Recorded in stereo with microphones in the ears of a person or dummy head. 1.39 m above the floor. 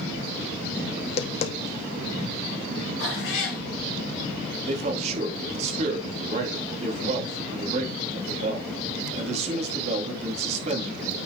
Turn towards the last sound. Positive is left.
turn(degrees=-40)  # may be behind; listen again after turning